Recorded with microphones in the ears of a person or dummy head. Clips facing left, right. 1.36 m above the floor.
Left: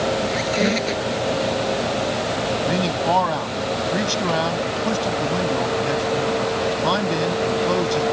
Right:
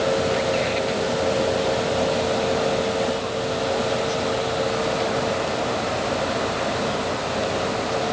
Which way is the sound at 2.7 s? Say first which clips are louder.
Left 1 dB; 85° left.